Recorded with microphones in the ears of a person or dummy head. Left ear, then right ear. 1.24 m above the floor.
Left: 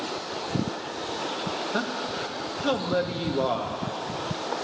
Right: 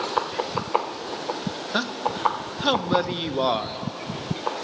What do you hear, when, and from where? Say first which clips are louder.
1.7 s a man speaking: right 3 dB; 30° right (ahead or behind), 0.7 m